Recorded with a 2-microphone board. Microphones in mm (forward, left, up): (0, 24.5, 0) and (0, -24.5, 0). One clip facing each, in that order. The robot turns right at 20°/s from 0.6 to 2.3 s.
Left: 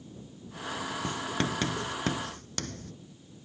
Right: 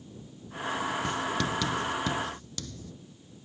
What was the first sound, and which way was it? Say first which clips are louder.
Writing: right 2 dB; 30° left (ahead or behind).